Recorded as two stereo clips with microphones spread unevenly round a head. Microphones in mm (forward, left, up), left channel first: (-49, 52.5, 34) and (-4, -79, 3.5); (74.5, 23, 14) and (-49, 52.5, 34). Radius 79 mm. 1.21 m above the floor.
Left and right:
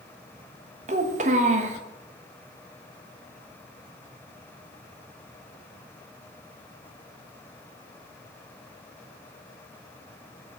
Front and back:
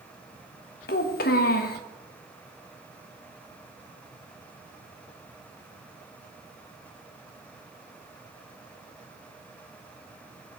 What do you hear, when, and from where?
0.9 s a child speaking: 25° right, 1.1 m